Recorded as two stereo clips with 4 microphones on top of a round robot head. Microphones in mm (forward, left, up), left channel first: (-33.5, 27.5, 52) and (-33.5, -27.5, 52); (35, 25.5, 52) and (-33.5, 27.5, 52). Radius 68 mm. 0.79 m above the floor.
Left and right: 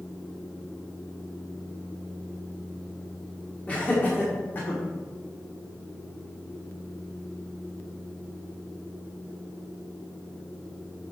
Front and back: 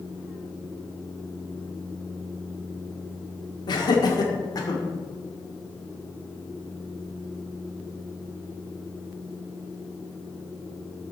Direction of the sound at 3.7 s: 20° left.